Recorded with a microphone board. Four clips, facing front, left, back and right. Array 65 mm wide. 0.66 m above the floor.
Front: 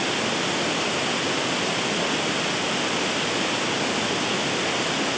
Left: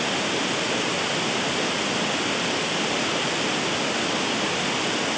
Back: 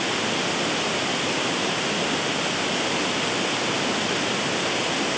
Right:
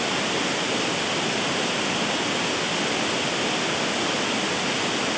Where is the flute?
I don't hear a flute.